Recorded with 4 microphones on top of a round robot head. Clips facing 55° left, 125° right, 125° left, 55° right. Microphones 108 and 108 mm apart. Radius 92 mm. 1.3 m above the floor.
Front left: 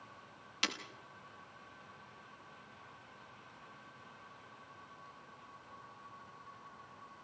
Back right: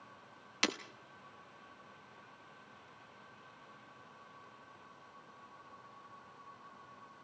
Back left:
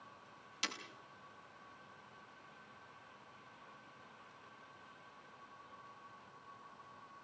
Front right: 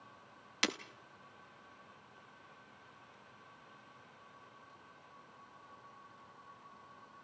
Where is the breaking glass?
80° right, 0.9 m.